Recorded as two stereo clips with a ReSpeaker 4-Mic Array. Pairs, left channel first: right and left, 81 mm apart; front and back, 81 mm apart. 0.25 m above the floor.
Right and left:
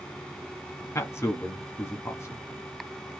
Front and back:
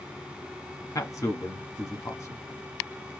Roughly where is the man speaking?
Ahead right.